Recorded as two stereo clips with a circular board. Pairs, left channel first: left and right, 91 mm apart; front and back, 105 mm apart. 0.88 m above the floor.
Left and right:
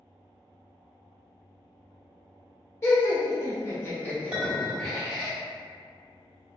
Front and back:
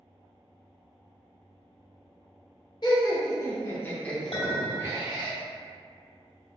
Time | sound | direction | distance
2.8 | laughter | 35° left | 1.1 m
4.3 | a clink | 10° right | 1.5 m